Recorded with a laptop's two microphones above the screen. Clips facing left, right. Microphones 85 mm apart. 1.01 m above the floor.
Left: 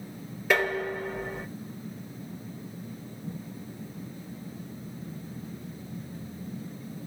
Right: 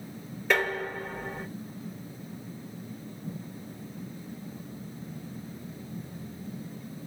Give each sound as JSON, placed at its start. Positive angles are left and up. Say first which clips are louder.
{"t": 0.5, "sound": "dishes clattering", "louder": "left 2 dB", "side_deg": 5, "distance_m": 2.5}